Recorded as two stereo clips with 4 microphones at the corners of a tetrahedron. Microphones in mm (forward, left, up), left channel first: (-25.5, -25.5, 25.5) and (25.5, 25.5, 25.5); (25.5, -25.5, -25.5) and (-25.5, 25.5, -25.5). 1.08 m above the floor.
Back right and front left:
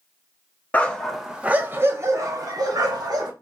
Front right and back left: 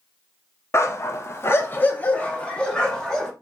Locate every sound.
0.7 s a dog barking: 75° right, 0.6 m; by 3.3 s 40° left, 1.2 m